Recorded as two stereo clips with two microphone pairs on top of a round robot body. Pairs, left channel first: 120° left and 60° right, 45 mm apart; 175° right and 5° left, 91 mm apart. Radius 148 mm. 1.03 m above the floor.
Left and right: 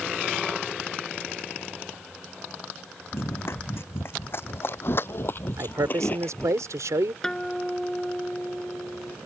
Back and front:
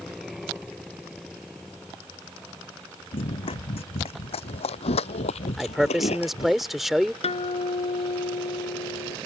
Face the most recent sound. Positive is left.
turn(degrees=-160)